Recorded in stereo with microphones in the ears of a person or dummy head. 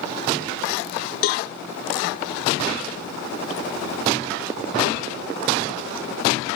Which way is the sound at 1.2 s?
50° left (ahead or behind).